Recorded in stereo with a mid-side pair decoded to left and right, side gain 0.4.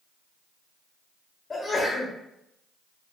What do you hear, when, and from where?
1.5 s a sneeze: 35° left, 1.2 m